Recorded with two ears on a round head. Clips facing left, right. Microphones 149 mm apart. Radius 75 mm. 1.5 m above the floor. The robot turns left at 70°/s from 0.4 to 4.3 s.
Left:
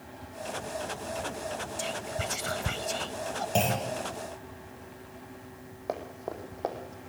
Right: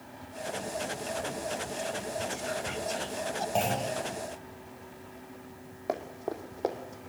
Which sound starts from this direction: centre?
Running footsteps, at 5.9 s.